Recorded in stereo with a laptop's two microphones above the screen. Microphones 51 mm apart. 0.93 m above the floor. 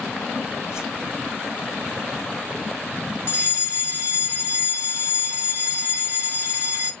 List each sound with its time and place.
0.7 s a whoosh: 75° left (ahead or behind), 3 m
3.3 s a fire alarm: 50° left (ahead or behind), 2.5 m